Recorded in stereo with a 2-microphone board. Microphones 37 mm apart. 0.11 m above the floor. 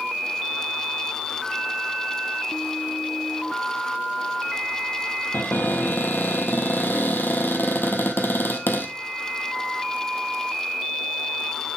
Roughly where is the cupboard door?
Left.